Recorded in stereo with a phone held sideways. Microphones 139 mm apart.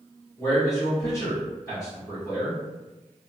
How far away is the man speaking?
About 1.2 m.